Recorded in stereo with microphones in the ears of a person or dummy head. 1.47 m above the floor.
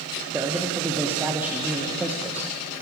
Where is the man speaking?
10° right (ahead or behind), 0.9 m.